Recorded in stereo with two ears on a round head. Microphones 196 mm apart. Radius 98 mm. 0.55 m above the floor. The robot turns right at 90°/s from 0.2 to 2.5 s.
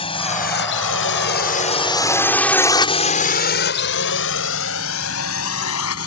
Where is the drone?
25° left (ahead or behind); by 6.1 s 75° left (ahead or behind).